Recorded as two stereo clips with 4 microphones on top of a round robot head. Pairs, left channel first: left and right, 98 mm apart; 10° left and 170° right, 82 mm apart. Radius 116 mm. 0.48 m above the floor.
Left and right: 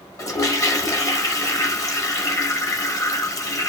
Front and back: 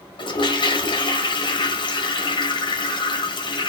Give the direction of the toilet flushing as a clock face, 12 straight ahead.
11 o'clock.